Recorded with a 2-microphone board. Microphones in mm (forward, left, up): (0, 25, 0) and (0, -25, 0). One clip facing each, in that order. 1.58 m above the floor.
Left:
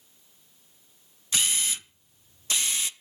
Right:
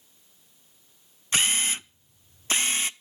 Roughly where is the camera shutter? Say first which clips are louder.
Right 4 dB; right.